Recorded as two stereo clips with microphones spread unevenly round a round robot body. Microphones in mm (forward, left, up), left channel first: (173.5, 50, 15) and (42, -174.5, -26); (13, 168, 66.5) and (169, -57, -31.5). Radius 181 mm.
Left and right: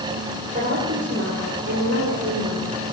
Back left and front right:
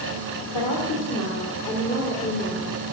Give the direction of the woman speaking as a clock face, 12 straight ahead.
6 o'clock.